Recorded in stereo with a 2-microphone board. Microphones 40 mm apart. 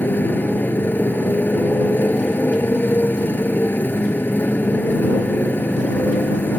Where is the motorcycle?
55° left (ahead or behind).